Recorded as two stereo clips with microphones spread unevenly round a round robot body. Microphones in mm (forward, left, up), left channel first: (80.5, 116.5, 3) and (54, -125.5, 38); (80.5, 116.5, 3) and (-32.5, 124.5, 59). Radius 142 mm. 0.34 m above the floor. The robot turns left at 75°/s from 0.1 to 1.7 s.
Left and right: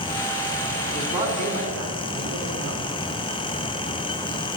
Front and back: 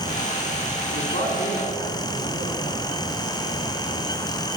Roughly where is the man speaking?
Ahead.